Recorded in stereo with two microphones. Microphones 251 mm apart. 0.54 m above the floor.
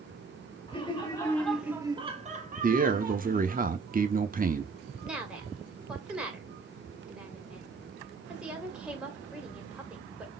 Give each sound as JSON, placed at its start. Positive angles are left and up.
{"t": 0.7, "sound": "laughter", "side_deg": 20, "distance_m": 1.6}
{"t": 2.6, "sound": "a man speaking", "side_deg": -35, "distance_m": 0.8}
{"t": 5.0, "sound": "a woman speaking", "side_deg": -5, "distance_m": 2.0}